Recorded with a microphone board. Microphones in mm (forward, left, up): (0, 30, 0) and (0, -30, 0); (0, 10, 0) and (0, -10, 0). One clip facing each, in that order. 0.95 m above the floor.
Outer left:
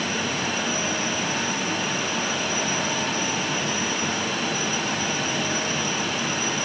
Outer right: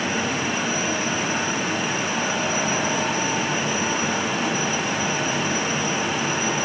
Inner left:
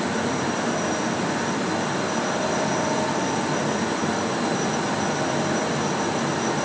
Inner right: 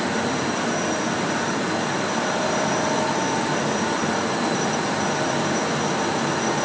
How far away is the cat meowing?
I don't hear a cat meowing.